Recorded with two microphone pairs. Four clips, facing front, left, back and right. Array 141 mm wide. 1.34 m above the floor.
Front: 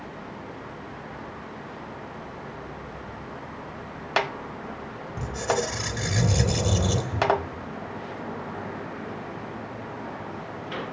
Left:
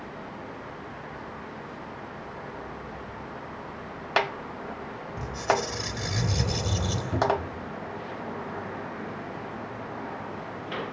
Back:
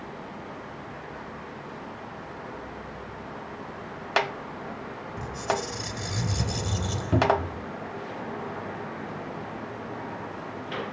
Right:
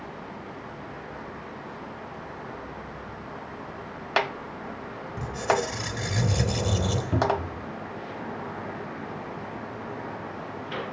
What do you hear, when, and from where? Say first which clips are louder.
5.2 s a squeak: right 1 dB, front 3 dB; 30° right, 3 m
7.1 s a cupboard door: left 1 dB, back 3 dB; straight behind, 1.8 m